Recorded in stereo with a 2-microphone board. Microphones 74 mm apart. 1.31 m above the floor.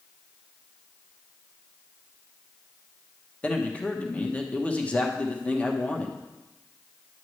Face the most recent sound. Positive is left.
turn(degrees=20)  # may be behind; listen again after turning